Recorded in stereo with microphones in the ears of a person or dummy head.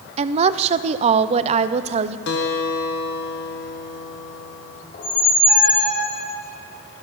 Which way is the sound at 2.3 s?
60° left (ahead or behind).